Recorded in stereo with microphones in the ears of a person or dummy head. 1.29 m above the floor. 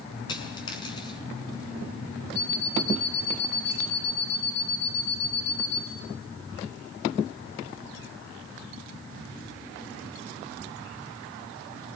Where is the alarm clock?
65° left (ahead or behind), 9.5 m.